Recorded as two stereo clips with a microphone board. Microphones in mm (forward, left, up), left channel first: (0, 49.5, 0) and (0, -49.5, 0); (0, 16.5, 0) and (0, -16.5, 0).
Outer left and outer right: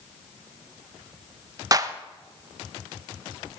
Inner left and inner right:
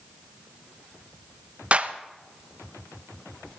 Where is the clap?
35° right (ahead or behind), 0.7 m.